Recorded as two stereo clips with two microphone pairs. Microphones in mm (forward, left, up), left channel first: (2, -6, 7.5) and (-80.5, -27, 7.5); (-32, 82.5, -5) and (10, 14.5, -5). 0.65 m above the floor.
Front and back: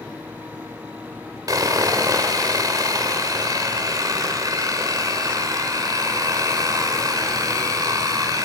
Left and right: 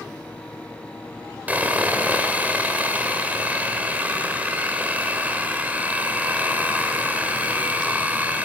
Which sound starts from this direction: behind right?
Sawing, at 1.5 s.